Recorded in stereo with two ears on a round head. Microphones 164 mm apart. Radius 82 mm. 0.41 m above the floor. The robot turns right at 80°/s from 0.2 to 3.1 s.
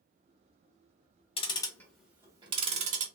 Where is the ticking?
30° left (ahead or behind), 0.8 m; by 3.0 s 45° right (ahead or behind), 0.8 m.